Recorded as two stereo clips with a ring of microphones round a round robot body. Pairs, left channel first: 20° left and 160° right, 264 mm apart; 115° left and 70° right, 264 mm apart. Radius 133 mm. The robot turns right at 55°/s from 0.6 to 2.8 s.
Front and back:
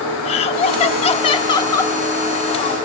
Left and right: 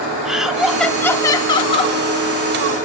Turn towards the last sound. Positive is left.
turn(degrees=140)